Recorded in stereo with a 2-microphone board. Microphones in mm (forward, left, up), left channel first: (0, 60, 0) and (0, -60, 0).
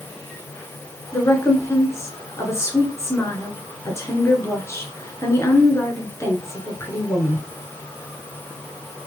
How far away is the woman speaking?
About 1.4 m.